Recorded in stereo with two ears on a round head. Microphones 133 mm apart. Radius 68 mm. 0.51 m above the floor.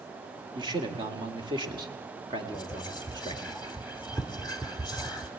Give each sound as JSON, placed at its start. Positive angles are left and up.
{"t": 0.6, "sound": "a man speaking", "side_deg": -30, "distance_m": 1.9}
{"t": 2.5, "sound": "whispering", "side_deg": -5, "distance_m": 1.2}